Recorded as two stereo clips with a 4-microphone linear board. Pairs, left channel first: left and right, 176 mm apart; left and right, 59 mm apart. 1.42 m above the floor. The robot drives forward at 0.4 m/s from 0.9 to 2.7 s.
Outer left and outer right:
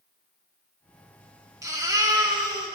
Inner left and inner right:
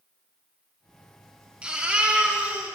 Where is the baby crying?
20° right (ahead or behind), 1.2 m; by 2.8 s 25° right (ahead or behind), 1.0 m.